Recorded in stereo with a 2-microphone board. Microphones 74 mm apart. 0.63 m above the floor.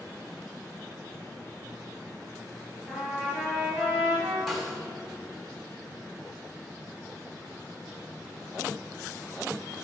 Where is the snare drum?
Centre (ahead or behind), 2.5 m.